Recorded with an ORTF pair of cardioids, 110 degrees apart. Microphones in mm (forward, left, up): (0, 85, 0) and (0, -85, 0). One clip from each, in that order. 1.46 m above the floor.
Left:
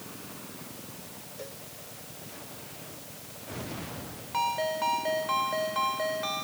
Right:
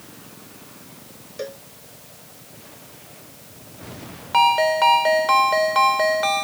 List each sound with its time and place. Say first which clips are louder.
1.4 s a cowbell: right 12 dB; 65° right
4.3 s a ringtone: right 12 dB; 65° right